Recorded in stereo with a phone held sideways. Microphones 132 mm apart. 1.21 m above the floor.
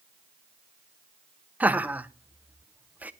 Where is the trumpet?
I don't hear a trumpet.